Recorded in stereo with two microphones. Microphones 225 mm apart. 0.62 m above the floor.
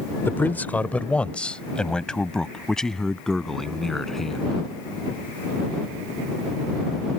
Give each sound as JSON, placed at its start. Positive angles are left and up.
{"t": 0.2, "sound": "a man speaking", "side_deg": 10}